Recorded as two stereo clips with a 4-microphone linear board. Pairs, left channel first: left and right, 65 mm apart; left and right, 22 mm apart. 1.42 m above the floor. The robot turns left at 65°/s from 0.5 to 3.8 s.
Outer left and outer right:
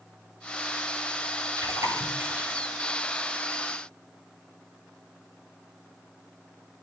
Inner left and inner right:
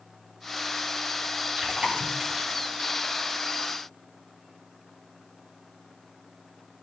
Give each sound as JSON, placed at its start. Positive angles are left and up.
{"t": 1.6, "sound": "chewing", "side_deg": -90, "distance_m": 9.0}